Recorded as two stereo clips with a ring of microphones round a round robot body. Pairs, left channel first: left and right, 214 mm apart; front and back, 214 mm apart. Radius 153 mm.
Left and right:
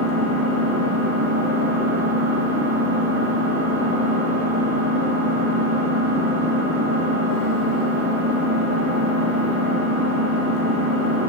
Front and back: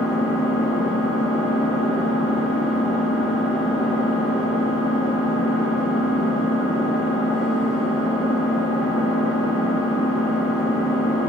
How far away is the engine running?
About 3 m.